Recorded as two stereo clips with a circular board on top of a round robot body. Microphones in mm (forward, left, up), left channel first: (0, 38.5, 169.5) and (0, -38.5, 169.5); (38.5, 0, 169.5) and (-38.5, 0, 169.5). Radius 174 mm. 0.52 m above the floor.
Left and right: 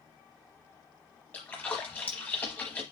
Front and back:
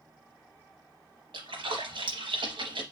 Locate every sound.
1.3 s a splash: 160° left, 0.9 m